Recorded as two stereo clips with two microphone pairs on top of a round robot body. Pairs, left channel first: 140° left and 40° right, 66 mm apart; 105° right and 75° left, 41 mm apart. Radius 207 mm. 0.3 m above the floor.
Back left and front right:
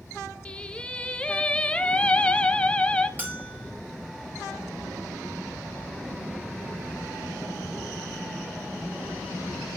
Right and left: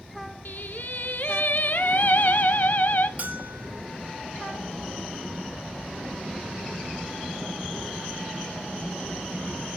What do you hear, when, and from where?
0.5 s singing: 145° right, 1.3 m
3.2 s a bell: 25° left, 4 m